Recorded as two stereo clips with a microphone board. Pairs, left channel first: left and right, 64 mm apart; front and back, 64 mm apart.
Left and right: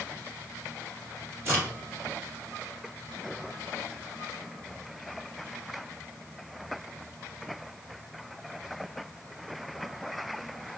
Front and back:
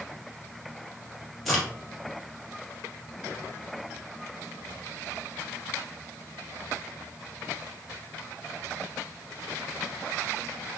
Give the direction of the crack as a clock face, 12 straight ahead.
3 o'clock.